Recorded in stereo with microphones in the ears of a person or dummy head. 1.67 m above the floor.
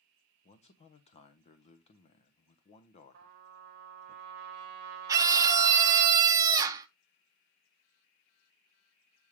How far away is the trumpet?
About 1.2 m.